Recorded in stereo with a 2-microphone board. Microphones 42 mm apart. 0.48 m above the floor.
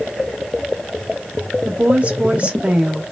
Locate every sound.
1.6 s a woman speaking: 35° right (ahead or behind), 1.0 m